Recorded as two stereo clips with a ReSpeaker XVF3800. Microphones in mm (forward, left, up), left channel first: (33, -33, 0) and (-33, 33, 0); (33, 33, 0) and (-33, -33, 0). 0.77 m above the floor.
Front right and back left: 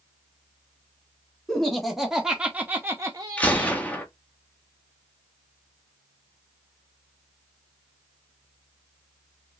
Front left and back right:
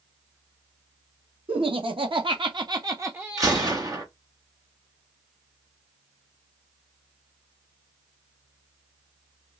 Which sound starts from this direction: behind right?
Laughter, at 1.5 s.